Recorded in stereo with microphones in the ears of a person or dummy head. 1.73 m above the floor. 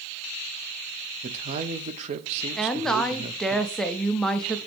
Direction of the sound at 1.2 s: 40° right (ahead or behind).